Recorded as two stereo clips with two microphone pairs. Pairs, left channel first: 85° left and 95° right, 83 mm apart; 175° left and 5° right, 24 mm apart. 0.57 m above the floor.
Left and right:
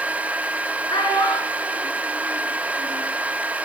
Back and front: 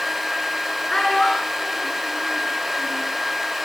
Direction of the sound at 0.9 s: 105° left.